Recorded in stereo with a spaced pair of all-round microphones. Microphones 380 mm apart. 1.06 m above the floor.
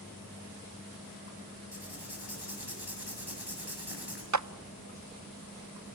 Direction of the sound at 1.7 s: 85° left.